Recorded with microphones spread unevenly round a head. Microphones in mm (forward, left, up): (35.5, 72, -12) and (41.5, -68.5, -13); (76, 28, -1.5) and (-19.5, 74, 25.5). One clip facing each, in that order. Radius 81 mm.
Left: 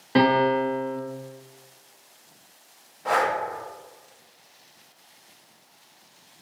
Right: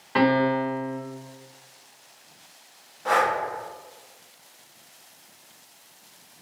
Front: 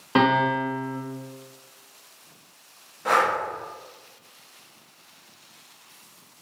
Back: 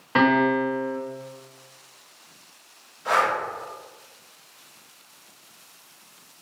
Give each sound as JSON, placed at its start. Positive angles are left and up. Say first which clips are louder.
{"t": 0.1, "sound": "a piano", "louder": "left 1 dB, back 1 dB", "azimuth_deg": 45, "distance_m": 1.0}
{"t": 3.0, "sound": "breathing", "louder": "right 1 dB, front 1 dB", "azimuth_deg": 10, "distance_m": 0.8}